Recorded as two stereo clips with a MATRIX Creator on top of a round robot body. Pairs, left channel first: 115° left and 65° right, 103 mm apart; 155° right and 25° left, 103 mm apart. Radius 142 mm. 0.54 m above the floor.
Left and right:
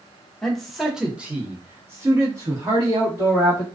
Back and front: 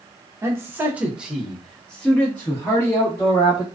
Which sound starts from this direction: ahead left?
A man speaking, at 0.4 s.